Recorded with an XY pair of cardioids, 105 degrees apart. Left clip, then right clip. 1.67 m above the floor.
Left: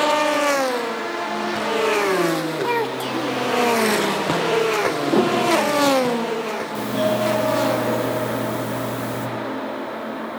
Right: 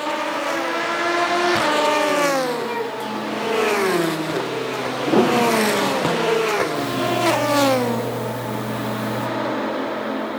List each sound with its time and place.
2.6 s a child speaking: 50° left, 1.6 m
5.1 s a piano: 10° right, 1.7 m
6.8 s a doorbell: 40° left, 3.5 m